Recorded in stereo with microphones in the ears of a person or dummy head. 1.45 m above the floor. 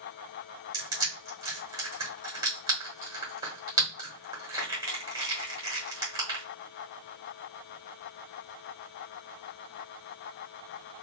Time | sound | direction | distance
0.7 | crushing | 20° right (ahead or behind) | 1.2 m